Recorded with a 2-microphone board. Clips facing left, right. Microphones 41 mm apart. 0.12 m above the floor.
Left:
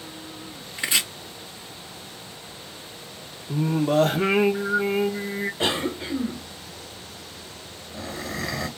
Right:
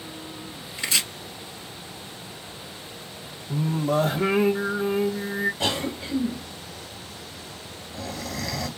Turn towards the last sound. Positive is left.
turn(degrees=30)  # may be behind; listen again after turning